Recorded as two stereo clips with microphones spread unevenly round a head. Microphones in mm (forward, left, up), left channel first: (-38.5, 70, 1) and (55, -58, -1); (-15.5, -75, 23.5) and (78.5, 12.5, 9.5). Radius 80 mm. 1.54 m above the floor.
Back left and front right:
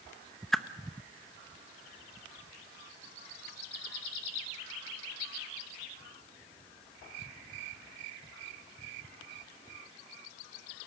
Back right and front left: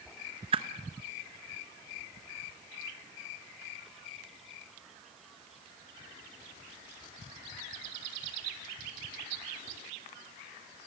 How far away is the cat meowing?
No cat meowing in this recording.